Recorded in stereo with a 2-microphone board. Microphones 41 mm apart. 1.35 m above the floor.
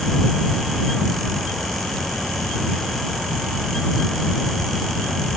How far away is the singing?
I don't hear singing.